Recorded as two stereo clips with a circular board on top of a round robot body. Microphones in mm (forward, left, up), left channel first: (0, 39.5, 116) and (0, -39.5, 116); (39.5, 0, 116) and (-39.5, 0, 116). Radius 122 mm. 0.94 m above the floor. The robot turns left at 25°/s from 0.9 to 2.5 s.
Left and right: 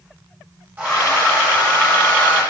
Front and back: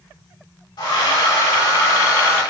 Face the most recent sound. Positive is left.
turn(degrees=-65)